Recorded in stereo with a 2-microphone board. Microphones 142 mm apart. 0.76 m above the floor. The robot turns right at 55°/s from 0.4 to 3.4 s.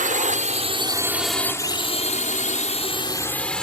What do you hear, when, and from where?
0.0 s a drone: 60° right (ahead or behind); by 3.6 s 5° left (ahead or behind)